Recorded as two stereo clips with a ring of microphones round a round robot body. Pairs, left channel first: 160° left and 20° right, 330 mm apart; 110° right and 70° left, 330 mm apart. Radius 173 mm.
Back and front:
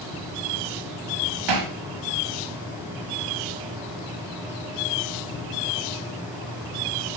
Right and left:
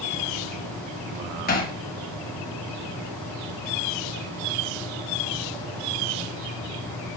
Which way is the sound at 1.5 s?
50° right.